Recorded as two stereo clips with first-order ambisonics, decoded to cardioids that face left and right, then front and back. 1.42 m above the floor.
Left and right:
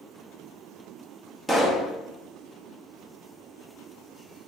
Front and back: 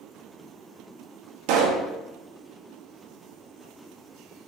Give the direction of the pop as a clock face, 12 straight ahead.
6 o'clock.